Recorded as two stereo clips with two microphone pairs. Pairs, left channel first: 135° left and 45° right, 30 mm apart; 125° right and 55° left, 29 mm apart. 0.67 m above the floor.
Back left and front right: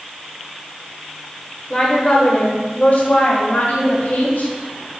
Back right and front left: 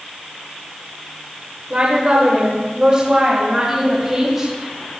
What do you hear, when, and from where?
1.7 s a woman speaking: 80° left, 1.8 m; by 4.5 s 130° left, 4 m